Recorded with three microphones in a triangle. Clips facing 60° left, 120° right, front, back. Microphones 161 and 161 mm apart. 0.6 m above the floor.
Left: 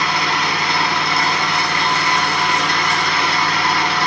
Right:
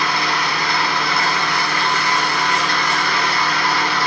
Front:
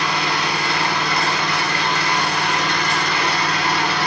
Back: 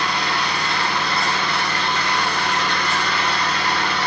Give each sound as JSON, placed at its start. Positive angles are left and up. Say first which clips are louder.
{"t": 0.0, "sound": "an engine running", "louder": "left 1 dB, front 1 dB", "azimuth_deg": -10, "distance_m": 1.3}